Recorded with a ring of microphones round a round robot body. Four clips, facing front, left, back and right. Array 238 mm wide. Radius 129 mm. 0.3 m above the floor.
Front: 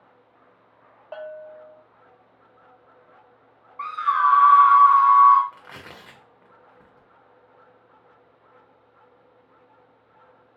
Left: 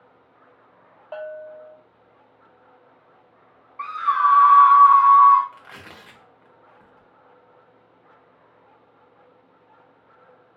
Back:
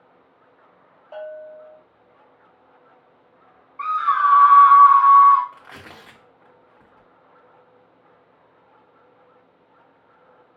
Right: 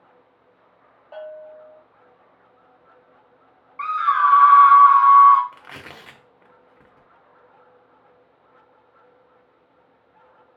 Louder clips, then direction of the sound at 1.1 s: Left 3 dB, back 2 dB; 55° left.